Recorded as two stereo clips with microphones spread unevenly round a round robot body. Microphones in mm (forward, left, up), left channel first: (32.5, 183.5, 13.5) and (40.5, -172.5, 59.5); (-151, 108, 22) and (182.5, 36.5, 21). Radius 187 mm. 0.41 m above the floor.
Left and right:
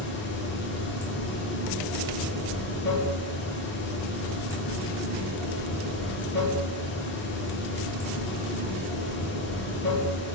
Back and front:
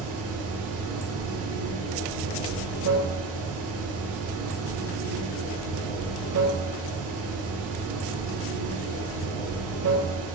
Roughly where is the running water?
Ahead left.